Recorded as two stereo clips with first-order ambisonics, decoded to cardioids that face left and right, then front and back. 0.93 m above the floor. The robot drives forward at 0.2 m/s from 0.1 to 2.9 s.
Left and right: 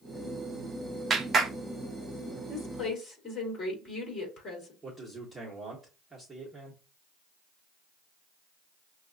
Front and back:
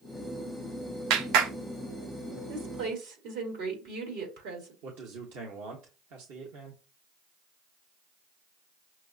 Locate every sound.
1.1 s a clap: 160° right, 0.6 m
2.5 s a woman speaking: 150° left, 2.5 m
4.8 s a man speaking: 175° right, 1.1 m